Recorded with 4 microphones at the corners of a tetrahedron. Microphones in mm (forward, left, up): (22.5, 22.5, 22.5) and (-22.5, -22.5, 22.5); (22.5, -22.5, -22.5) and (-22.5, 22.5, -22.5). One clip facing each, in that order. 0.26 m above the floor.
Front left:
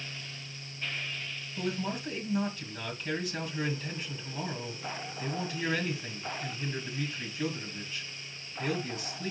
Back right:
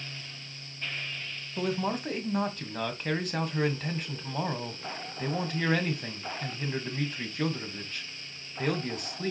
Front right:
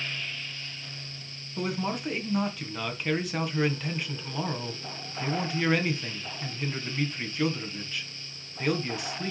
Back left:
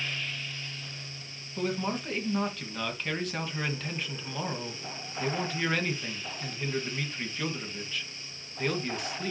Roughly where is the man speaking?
Behind right.